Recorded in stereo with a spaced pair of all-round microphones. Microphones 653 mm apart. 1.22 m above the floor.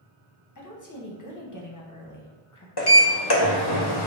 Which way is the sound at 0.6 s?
30° left (ahead or behind).